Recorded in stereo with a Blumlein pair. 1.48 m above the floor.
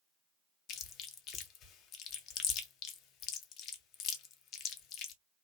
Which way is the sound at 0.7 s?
35° left.